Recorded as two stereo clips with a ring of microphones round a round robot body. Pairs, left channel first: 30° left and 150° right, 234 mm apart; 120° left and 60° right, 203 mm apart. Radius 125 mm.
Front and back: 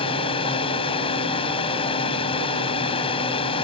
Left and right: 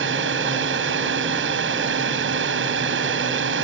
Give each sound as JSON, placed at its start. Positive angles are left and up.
{"t": 0.0, "sound": "a drone", "azimuth_deg": -35}